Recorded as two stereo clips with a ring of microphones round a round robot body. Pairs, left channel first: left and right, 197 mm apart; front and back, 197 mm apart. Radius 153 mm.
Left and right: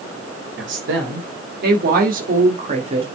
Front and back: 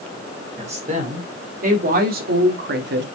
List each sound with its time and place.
0.6 s a woman speaking: 120° right, 2.5 m; by 3.0 s 155° right, 1.9 m